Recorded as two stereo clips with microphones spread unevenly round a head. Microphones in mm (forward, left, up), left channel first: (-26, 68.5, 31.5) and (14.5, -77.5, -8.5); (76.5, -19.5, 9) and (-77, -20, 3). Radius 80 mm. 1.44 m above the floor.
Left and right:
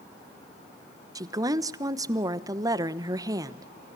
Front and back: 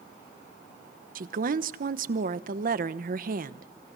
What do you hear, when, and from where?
1.1 s a woman speaking: 145° right, 1.0 m